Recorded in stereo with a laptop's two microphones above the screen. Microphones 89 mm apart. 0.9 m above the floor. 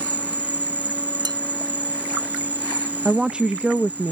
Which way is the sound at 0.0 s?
20° right (ahead or behind).